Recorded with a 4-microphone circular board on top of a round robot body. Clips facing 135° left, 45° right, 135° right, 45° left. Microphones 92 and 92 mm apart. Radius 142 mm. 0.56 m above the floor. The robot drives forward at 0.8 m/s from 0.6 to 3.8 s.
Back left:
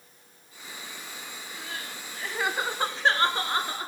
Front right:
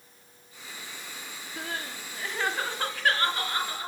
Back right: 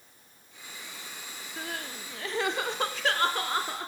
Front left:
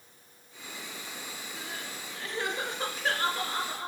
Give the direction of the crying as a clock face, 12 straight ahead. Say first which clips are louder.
Front right 5 dB, back right 6 dB; 3 o'clock.